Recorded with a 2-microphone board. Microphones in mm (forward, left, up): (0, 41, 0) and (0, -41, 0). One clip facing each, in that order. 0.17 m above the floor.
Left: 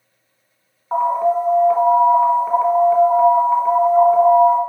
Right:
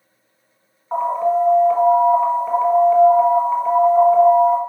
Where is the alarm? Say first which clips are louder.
Left 1 dB; 5° left (ahead or behind), 1.2 m.